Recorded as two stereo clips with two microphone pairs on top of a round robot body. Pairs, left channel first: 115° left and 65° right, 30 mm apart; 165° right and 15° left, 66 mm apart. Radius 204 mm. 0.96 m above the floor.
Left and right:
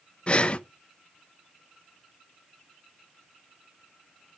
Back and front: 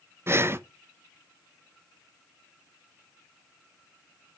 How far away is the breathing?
About 0.8 m.